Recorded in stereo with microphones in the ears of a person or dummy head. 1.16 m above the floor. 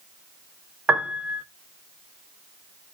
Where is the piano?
10° right (ahead or behind), 0.6 m.